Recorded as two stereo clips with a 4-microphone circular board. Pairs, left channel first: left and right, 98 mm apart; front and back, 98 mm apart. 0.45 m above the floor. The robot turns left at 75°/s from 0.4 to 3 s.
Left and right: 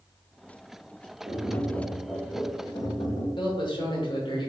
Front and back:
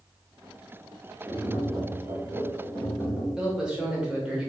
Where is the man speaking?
100° left, 1.1 m.